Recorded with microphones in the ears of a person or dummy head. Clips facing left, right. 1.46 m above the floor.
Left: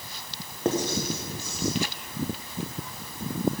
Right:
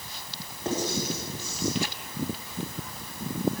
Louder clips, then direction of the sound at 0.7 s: Left 3 dB; 50° left (ahead or behind).